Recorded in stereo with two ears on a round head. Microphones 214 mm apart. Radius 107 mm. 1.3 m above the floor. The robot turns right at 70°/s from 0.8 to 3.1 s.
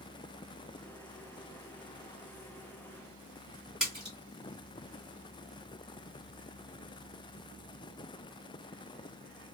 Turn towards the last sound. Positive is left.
turn(degrees=0)  # may be behind; listen again after turning